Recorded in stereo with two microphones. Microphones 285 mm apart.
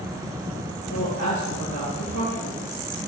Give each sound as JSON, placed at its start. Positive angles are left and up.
{"t": 0.9, "sound": "a woman speaking", "side_deg": 75, "distance_m": 4.0}